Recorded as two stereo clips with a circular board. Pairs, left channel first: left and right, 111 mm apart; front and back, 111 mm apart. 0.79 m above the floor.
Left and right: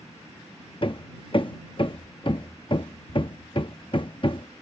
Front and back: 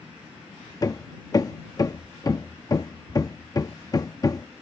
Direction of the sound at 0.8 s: 55° left.